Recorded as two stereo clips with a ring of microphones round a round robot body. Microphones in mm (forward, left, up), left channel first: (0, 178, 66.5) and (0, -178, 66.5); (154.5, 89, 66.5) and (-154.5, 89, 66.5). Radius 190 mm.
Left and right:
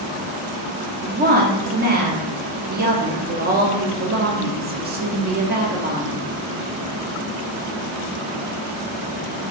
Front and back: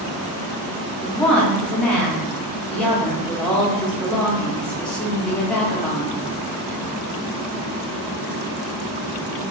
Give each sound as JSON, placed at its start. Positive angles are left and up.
{"t": 1.0, "sound": "a woman speaking", "azimuth_deg": -80, "distance_m": 0.7}